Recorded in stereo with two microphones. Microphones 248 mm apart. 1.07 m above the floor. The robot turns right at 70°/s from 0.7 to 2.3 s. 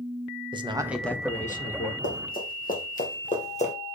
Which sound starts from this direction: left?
Running footsteps, at 2.0 s.